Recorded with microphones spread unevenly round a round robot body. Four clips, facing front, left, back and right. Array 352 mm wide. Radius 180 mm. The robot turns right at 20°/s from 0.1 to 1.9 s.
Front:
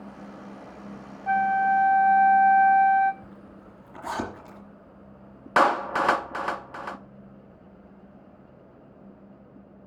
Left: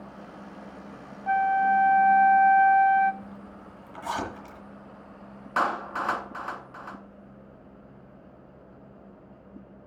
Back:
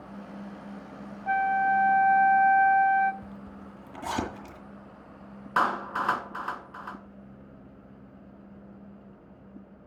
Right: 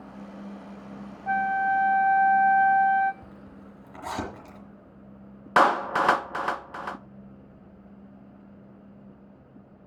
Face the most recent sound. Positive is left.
turn(degrees=-40)